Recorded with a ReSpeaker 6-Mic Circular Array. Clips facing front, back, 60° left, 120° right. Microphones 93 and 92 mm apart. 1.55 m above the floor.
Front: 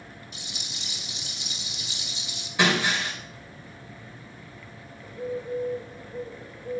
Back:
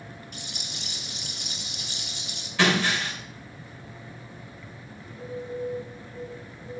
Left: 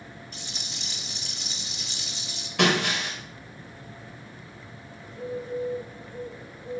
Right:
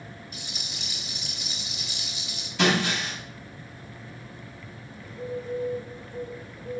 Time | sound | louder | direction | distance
0.3 | a rattle | back 2 dB, even | 160° left | 1.9 m
2.6 | breaking glass | even, even | 70° left | 3 m
5.0 | a bird | front 4 dB, even | 20° right | 2.0 m